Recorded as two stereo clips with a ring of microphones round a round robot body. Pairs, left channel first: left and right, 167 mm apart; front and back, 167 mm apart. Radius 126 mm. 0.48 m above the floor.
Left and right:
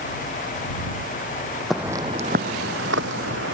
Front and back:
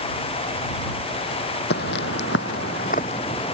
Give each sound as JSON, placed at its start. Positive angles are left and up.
{"t": 1.7, "sound": "footsteps", "azimuth_deg": 0}